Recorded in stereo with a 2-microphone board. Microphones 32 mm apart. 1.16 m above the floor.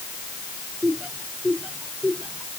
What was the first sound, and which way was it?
Laughter, 55° right (ahead or behind).